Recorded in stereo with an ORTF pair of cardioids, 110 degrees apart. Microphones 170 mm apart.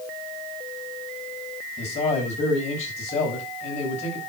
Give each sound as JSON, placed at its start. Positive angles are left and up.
{"t": 1.8, "sound": "a man speaking", "azimuth_deg": 45, "distance_m": 8.0}